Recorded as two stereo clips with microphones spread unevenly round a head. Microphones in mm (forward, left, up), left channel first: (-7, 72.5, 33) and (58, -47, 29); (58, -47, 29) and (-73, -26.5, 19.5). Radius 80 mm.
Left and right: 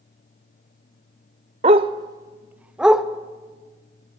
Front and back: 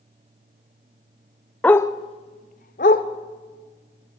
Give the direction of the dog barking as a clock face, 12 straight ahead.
2 o'clock.